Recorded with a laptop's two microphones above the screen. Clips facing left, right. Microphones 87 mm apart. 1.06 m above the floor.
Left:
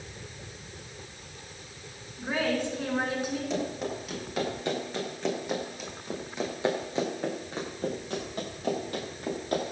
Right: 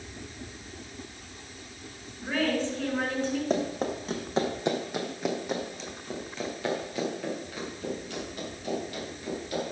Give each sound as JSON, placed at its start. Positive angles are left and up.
{"t": 2.2, "sound": "a woman speaking", "side_deg": 15, "distance_m": 6.5}
{"t": 3.5, "sound": "running footsteps", "side_deg": -45, "distance_m": 3.0}